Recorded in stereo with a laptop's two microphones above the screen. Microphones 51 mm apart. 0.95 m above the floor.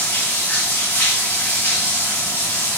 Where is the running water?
35° left (ahead or behind), 1.3 m.